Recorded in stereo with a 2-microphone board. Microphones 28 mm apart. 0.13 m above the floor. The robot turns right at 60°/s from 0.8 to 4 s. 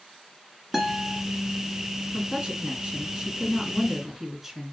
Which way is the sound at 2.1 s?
20° right (ahead or behind).